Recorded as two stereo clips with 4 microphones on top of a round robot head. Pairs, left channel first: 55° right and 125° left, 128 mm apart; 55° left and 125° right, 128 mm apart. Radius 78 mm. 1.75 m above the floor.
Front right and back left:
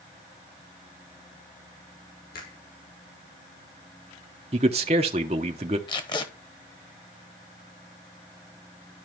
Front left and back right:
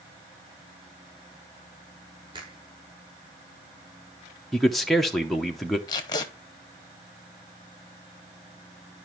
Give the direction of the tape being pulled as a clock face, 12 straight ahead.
12 o'clock.